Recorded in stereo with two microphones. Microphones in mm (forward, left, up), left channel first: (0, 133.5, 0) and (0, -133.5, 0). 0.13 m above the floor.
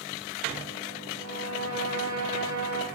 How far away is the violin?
About 7.5 m.